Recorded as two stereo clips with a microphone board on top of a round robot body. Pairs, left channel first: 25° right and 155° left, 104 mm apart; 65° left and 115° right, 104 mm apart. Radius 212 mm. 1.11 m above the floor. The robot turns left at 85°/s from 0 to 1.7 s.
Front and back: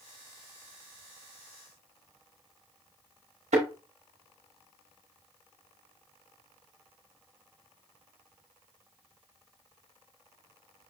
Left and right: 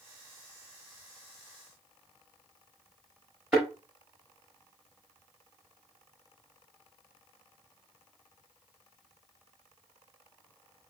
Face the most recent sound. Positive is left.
turn(degrees=175)